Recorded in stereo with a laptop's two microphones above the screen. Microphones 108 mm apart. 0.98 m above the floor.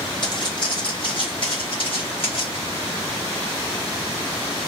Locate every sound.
0.2 s footsteps: 45° left (ahead or behind), 2.5 m; by 2.6 s 55° left (ahead or behind), 3.5 m